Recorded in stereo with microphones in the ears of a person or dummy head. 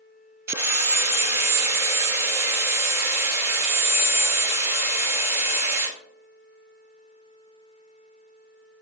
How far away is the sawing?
About 0.6 m.